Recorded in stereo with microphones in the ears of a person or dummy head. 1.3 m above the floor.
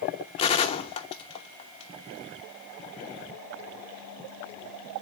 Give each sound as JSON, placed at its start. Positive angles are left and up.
{"t": 0.4, "sound": "a gunshot", "side_deg": 35, "distance_m": 0.7}